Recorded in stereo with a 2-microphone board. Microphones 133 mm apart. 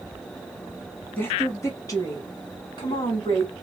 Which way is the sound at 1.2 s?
15° left (ahead or behind).